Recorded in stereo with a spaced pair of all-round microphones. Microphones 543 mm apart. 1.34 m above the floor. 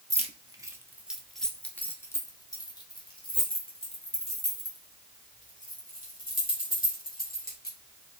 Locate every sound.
0.1 s keys jangling: 15° right (ahead or behind), 1.1 m; by 8.2 s 15° left (ahead or behind), 5 m